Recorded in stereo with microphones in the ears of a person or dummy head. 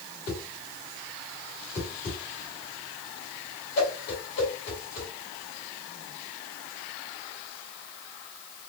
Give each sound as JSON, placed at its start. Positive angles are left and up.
{"t": 0.3, "sound": "a whoosh", "side_deg": 55, "distance_m": 3.0}